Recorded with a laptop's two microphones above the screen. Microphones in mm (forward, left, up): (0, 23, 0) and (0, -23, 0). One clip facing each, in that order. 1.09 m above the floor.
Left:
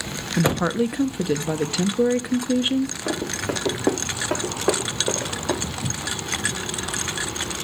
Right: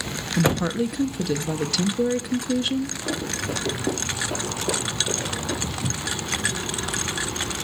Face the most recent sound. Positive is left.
turn(degrees=20)  # may be behind; listen again after turning